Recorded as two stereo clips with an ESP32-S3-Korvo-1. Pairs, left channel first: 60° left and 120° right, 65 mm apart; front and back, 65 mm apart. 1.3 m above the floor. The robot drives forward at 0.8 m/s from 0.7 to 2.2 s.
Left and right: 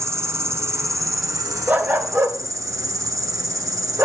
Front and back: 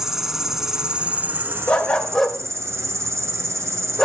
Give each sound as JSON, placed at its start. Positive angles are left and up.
{"t": 0.0, "sound": "an insect", "azimuth_deg": -100, "distance_m": 1.2}
{"t": 1.7, "sound": "a dog barking", "azimuth_deg": -65, "distance_m": 1.7}